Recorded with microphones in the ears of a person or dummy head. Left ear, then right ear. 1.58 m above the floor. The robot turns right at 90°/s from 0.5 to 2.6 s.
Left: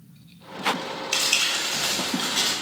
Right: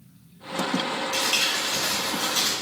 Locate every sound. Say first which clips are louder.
1.1 s crumpling: left 2 dB; 70° left, 0.9 m; by 2.5 s 165° right, 0.9 m